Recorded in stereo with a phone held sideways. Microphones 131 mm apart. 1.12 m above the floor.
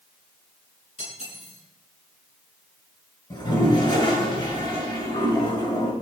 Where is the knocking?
No knocking in this recording.